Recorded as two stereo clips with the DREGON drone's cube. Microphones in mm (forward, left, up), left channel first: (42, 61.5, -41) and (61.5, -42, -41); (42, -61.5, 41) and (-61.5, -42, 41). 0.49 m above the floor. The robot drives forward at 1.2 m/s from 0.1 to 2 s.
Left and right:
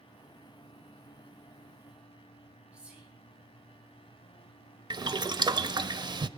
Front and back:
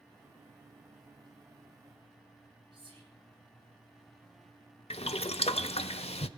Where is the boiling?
30° right, 0.5 m.